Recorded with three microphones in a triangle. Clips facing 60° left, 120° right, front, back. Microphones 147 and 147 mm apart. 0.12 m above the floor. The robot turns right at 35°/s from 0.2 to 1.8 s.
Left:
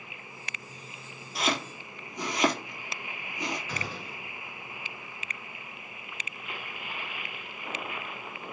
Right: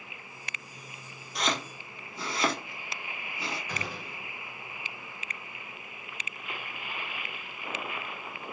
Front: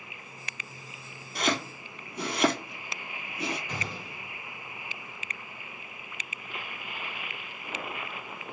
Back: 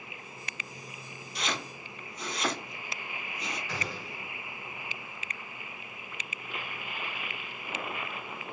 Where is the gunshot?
55° right, 1.7 m.